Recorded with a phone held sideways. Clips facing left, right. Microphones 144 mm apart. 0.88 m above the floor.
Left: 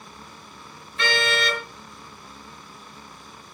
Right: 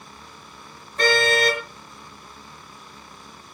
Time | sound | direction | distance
1.0 | a car horn | 45° right (ahead or behind) | 5.5 m